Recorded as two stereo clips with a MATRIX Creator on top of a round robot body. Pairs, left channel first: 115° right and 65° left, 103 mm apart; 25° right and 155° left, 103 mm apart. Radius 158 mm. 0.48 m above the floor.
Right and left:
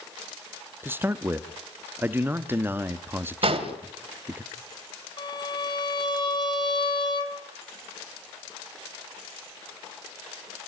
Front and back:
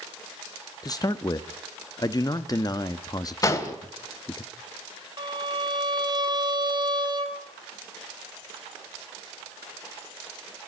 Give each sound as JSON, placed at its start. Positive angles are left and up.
{"t": 0.8, "sound": "a man speaking", "azimuth_deg": 5, "distance_m": 1.2}
{"t": 3.4, "sound": "an explosion", "azimuth_deg": 40, "distance_m": 3.0}
{"t": 5.2, "sound": "a violin", "azimuth_deg": -155, "distance_m": 4.0}